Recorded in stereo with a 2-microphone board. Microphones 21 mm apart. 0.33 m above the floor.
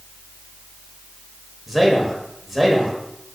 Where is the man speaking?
5° right (ahead or behind), 1.1 m.